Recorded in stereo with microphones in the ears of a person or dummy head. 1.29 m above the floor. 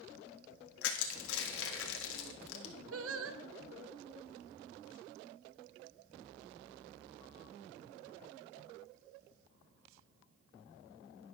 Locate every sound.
0.8 s crushing: 80° left, 1.6 m
2.9 s singing: 70° right (ahead or behind), 0.8 m